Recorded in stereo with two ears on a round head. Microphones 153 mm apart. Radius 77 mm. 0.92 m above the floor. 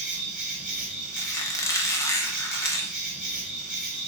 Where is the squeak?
15° left (ahead or behind), 0.5 m.